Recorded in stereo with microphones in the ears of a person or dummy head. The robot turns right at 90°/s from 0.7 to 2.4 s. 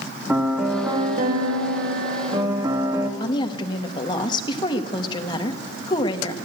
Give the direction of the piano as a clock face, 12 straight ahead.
6 o'clock.